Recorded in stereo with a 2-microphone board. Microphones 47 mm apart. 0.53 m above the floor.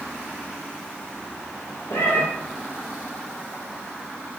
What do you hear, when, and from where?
1.9 s a cat meowing: 65° left (ahead or behind), 7.5 m